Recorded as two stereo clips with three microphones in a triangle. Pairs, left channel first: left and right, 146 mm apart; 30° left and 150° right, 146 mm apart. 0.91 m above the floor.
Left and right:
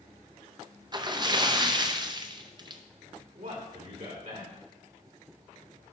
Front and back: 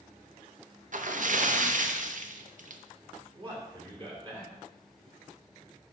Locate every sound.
0.9 s a splash: 150° right, 0.5 m
3.4 s a man speaking: 100° right, 2.5 m